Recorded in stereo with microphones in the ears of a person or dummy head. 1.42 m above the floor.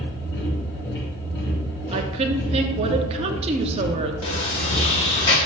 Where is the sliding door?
25° left (ahead or behind), 1.1 m.